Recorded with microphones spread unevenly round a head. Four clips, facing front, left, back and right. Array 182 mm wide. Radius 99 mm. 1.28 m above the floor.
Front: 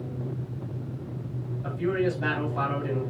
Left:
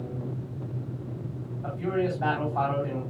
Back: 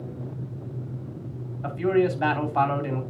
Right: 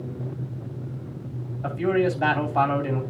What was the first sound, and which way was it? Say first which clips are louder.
A man speaking: right 6 dB, back 4 dB; 125° right.